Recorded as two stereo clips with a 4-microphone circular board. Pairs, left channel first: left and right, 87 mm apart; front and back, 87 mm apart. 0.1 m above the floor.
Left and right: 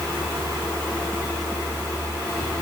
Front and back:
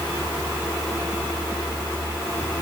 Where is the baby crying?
No baby crying in this recording.